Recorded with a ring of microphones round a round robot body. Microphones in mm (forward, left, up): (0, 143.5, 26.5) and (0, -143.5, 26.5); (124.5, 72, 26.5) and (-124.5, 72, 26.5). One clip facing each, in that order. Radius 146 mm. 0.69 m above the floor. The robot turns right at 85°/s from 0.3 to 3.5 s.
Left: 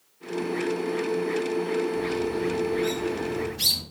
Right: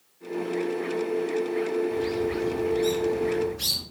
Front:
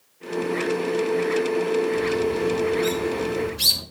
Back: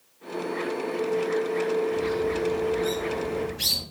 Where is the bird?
105° right, 4.5 m; by 3.8 s 30° left, 4.5 m.